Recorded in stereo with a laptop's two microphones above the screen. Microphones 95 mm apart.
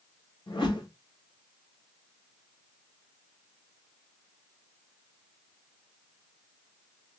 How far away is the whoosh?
About 2.5 m.